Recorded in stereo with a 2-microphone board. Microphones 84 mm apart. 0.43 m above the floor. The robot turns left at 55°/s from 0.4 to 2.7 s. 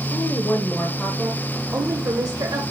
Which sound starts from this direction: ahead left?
A woman speaking, at 0.1 s.